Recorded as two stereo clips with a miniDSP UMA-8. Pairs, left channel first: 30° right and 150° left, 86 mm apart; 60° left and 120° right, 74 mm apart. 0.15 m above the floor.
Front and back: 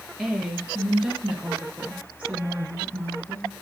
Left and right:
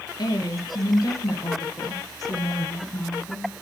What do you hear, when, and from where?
0.2 s a woman speaking: 60° left, 3.5 m; by 3.5 s 100° left, 2.5 m